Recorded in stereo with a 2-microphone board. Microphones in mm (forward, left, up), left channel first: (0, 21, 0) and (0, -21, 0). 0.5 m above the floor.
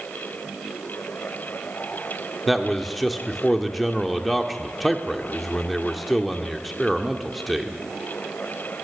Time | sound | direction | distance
2.5 | a man speaking | centre (ahead or behind) | 1.5 m